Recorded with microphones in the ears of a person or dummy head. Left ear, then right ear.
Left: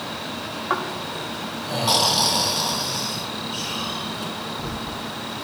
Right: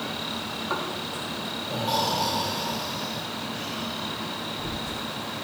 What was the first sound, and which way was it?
Snoring, 50° left (ahead or behind).